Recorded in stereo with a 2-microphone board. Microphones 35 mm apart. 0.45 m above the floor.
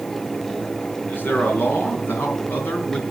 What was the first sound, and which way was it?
A man speaking, 75° left (ahead or behind).